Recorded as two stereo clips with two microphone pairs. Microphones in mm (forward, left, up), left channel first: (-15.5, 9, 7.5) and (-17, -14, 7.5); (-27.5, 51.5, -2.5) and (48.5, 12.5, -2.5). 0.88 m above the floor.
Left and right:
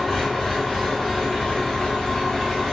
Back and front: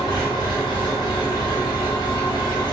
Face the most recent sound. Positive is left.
turn(degrees=150)